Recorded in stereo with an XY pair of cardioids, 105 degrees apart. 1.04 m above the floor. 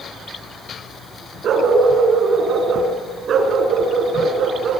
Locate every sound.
1.4 s a dog barking: 55° right, 5 m